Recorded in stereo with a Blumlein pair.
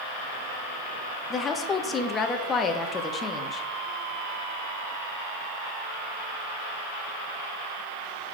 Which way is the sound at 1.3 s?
20° left.